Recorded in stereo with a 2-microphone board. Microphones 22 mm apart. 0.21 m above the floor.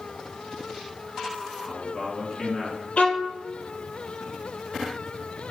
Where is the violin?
65° left (ahead or behind), 1.5 m.